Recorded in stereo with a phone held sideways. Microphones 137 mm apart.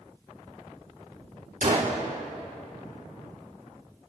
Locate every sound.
1.6 s a gunshot: 75° right (ahead or behind), 3 m